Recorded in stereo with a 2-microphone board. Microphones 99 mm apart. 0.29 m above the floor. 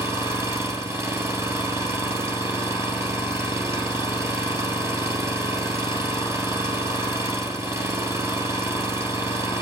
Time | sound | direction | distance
0.0 | an engine running | 30° right (ahead or behind) | 1.6 m